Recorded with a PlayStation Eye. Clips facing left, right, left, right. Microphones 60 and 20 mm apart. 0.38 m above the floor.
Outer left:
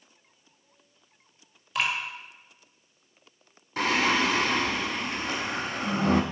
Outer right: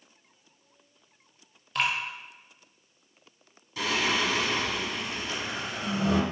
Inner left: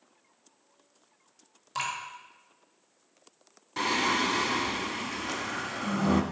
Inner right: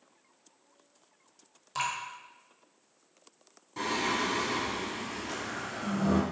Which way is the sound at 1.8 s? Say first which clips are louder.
Even, even; 5° left (ahead or behind).